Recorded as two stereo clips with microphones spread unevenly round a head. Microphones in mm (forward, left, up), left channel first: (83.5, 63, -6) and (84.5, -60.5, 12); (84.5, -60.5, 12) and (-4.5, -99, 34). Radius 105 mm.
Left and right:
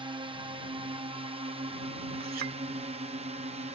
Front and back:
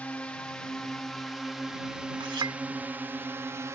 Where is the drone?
40° right; by 3.7 s 90° right.